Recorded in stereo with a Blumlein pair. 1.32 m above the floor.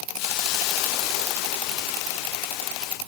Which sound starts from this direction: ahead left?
A hiss, at 0.2 s.